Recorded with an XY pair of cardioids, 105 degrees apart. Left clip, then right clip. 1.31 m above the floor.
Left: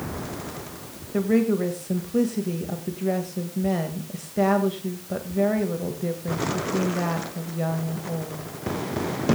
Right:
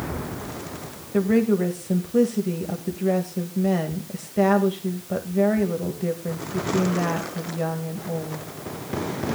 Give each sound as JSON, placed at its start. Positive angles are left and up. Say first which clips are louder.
{"t": 1.1, "sound": "a woman speaking", "louder": "right 2 dB", "azimuth_deg": -10, "distance_m": 1.8}